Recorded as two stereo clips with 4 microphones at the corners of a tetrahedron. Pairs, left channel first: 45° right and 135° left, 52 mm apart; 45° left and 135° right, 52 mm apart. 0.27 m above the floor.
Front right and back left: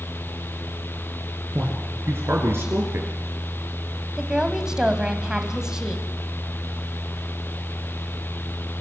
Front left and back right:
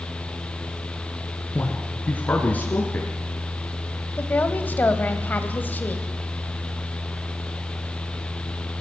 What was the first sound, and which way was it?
A man speaking, 100° left.